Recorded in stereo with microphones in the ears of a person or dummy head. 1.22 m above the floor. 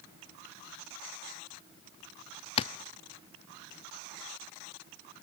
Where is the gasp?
I don't hear a gasp.